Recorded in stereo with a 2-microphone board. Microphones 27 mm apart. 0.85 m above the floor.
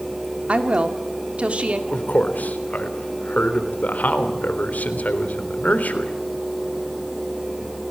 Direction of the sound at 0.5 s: 45° right (ahead or behind).